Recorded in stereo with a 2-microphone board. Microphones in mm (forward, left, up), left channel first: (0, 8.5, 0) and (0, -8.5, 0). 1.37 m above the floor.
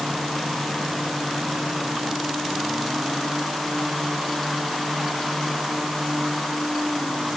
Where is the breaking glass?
I don't hear breaking glass.